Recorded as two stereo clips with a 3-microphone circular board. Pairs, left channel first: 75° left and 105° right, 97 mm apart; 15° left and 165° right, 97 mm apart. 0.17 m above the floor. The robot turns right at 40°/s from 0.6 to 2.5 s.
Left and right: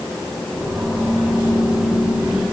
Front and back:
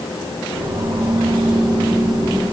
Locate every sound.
Only background noise.